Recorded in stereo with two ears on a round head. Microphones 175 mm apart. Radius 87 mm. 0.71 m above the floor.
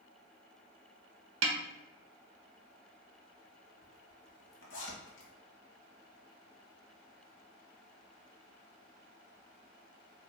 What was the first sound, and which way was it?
A snare drum, 75° right (ahead or behind).